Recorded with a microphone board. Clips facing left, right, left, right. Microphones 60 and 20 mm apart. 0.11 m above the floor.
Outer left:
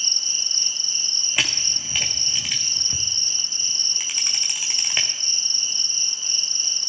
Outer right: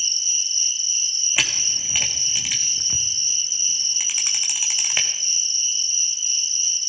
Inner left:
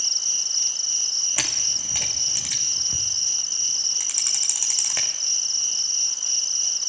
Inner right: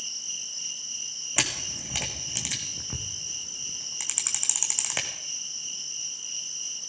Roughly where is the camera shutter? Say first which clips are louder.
Even, inner left 5 dB; centre.